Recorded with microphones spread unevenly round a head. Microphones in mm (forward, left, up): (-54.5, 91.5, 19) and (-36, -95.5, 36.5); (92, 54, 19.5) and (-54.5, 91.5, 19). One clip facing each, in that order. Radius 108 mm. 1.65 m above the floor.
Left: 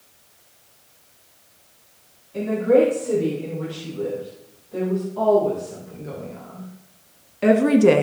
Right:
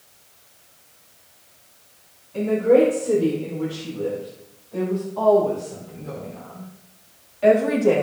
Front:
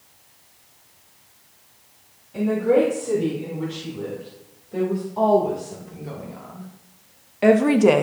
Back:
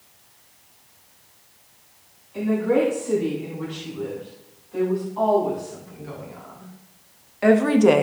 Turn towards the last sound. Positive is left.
turn(degrees=80)